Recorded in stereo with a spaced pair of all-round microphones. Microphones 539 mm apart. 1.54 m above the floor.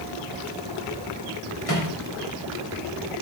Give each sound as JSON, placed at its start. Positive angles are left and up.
{"t": 1.7, "sound": "a microwave", "side_deg": 85, "distance_m": 3.0}